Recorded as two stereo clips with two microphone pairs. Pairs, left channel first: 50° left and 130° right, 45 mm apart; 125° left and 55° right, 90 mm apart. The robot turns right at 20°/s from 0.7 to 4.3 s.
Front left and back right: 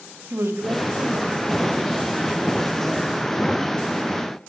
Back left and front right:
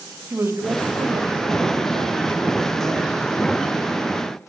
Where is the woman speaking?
115° right, 2.5 m; by 3.3 s 65° right, 2.5 m.